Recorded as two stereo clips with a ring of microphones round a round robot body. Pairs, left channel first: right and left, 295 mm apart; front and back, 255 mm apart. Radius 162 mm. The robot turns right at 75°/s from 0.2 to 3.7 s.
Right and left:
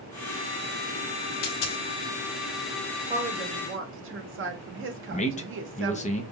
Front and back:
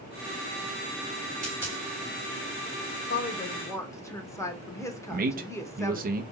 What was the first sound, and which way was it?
A dropped coin, 115° right.